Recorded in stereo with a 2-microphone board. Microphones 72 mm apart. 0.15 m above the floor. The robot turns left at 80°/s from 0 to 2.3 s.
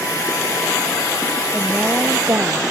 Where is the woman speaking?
10° left; by 2.6 s 55° right.